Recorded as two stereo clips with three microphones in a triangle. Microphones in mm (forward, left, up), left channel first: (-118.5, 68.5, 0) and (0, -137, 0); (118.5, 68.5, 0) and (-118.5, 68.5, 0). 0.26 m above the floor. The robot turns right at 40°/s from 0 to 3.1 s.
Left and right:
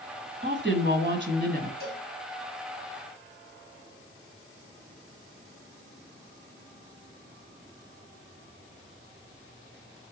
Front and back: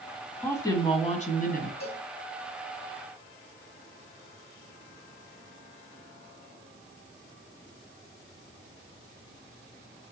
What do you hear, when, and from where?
0.4 s a woman speaking: 80° right, 1.8 m; by 1.7 s 30° right, 1.8 m
1.8 s a cowbell: 60° right, 3 m; by 2.0 s 50° right, 3 m